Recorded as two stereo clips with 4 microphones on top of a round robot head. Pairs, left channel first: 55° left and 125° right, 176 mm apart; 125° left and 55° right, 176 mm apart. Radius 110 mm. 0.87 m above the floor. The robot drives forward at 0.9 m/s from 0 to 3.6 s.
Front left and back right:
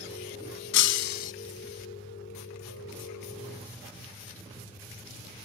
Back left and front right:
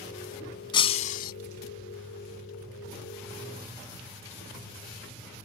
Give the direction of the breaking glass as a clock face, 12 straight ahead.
10 o'clock.